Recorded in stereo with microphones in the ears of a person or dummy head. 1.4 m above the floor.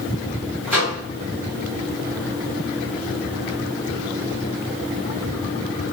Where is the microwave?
10° right (ahead or behind), 1.5 m.